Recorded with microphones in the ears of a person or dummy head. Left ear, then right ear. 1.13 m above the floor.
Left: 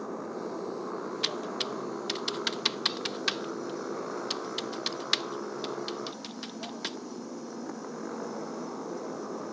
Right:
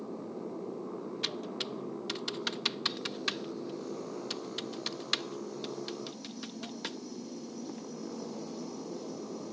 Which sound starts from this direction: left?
A motorcycle, at 0.0 s.